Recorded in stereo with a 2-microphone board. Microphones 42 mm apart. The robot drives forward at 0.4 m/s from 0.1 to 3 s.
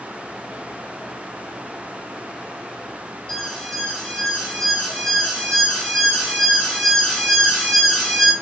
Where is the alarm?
15° left (ahead or behind), 4.5 m.